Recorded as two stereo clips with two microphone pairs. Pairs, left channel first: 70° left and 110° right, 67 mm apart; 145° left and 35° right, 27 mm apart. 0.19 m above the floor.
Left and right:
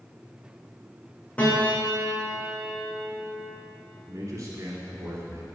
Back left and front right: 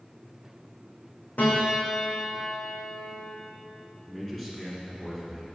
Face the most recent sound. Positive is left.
turn(degrees=-145)